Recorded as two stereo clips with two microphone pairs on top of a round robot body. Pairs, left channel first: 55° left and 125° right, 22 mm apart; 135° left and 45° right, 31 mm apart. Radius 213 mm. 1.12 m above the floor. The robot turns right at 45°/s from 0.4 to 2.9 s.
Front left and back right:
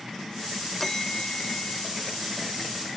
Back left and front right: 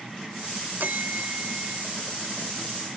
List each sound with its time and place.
0.8 s a bell: 20° right; by 1.9 s 25° left